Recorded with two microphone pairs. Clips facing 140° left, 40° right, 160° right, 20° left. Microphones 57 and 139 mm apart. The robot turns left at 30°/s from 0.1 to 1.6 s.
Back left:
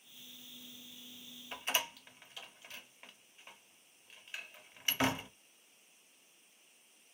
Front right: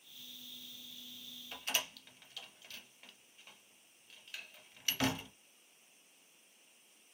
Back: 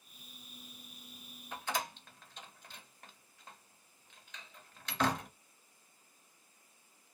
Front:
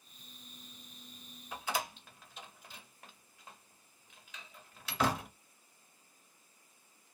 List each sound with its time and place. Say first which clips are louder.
1.5 s a door slam: back left 3 dB, front 1 dB; 105° left, 0.6 m